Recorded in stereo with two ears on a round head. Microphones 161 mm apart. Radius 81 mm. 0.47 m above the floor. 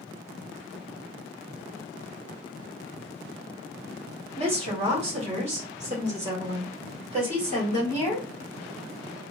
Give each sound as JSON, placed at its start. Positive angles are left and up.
{"t": 4.4, "sound": "a woman speaking", "side_deg": -30, "distance_m": 1.4}